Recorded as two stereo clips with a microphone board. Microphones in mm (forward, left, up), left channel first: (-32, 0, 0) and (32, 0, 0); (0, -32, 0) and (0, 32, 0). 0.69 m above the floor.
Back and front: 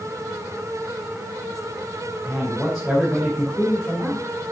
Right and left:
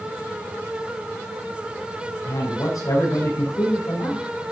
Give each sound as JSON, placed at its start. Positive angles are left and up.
{"t": 2.2, "sound": "a man speaking", "azimuth_deg": -85, "distance_m": 4.5}